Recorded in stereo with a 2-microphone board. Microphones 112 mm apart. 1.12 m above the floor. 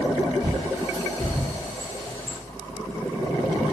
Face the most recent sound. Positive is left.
turn(degrees=-35)  # may be behind; listen again after turning